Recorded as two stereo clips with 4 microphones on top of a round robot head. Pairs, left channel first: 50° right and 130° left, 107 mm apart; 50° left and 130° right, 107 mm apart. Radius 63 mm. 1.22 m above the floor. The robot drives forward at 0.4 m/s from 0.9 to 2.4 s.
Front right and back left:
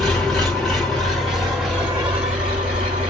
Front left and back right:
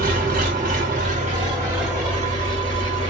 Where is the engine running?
135° right, 1.3 m; by 3.1 s 150° right, 1.8 m.